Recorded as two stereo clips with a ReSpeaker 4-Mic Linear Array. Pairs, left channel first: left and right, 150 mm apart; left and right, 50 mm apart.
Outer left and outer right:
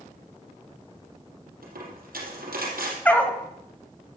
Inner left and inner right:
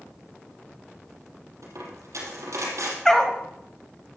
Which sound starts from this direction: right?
A dropped coin, at 1.6 s.